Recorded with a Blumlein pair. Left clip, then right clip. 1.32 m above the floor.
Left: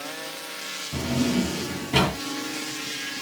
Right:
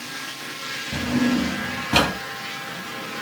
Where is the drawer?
55° right, 1.7 m.